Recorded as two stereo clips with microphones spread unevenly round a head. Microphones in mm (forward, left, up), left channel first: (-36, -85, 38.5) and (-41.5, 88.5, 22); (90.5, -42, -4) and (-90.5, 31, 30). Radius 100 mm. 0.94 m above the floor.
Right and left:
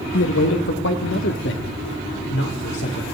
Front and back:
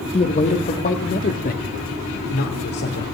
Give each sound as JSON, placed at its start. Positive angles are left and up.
{"t": 0.1, "sound": "a man speaking", "azimuth_deg": -80, "distance_m": 1.9}